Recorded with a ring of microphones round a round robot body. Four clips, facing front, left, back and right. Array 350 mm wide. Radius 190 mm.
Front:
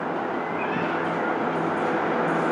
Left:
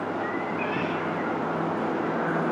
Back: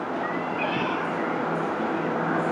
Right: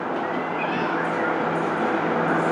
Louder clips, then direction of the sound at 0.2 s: Right 3 dB, front 1 dB; 170° right.